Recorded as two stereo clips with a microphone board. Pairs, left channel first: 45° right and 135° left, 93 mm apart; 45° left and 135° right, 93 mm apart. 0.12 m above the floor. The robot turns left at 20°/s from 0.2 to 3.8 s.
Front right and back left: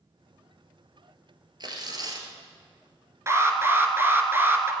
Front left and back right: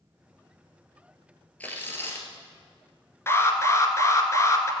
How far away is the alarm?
About 1.3 m.